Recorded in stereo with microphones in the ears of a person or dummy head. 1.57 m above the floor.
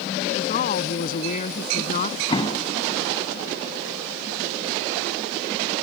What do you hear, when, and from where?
0.3 s a woman speaking: 45° left (ahead or behind)
2.3 s an explosion: 25° left (ahead or behind)